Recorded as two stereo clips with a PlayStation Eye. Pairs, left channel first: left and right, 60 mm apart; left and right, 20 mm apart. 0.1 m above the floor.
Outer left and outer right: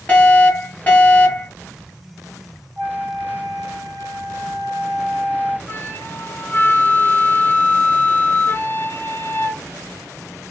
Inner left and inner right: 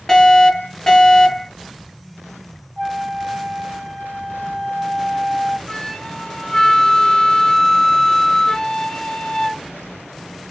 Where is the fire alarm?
25° left (ahead or behind), 2.5 m.